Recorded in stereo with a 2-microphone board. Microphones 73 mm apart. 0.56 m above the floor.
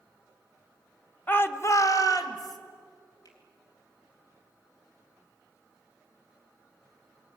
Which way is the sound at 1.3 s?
25° left (ahead or behind).